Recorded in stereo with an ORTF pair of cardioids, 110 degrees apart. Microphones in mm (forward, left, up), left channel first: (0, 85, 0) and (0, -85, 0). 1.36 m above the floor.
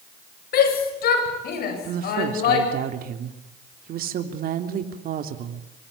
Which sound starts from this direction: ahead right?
A woman speaking, at 1.8 s.